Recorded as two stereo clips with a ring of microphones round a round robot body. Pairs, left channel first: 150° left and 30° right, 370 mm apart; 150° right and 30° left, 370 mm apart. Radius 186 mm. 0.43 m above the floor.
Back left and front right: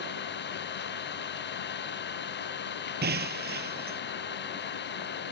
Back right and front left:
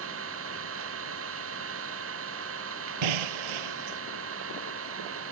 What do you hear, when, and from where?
0.0 s an engine running: 85° left
3.0 s breaking glass: 35° left